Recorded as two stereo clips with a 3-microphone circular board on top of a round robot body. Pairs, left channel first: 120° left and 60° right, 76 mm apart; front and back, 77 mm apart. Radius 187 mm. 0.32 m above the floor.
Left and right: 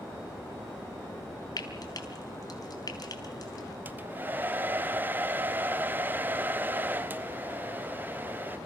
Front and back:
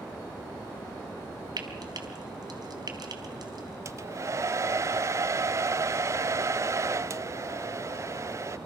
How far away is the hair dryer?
About 0.7 m.